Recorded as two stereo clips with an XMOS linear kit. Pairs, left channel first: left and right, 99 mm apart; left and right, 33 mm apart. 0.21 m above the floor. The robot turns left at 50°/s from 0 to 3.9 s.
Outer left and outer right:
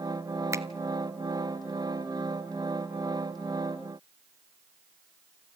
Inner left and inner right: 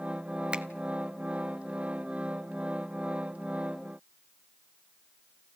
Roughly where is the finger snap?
Right.